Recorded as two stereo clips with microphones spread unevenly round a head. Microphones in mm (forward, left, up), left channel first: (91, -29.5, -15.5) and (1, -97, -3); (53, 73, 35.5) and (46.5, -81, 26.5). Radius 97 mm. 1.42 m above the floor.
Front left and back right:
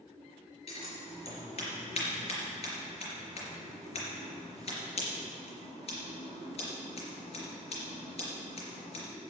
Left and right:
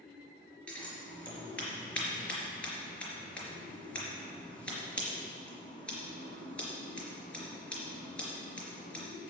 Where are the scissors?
10° left, 4 m.